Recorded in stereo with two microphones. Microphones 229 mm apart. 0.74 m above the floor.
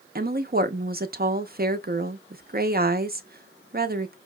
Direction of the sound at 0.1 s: 40° right (ahead or behind).